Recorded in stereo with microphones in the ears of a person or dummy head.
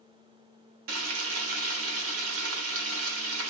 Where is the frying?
85° right, 1.0 m.